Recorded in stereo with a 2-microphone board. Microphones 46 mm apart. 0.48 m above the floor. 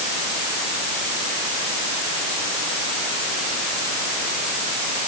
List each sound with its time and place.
Only background noise.